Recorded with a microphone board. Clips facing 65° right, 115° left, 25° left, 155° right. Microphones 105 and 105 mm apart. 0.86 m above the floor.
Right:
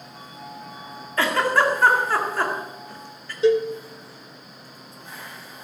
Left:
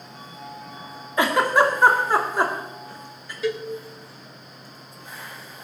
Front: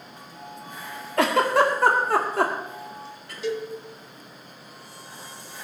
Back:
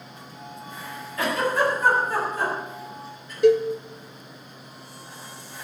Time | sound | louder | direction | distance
1.2 | a giggle | left 2 dB, front 4 dB | 40° left | 2 m
3.4 | a cowbell | right 8 dB, back 12 dB | 130° right | 1.0 m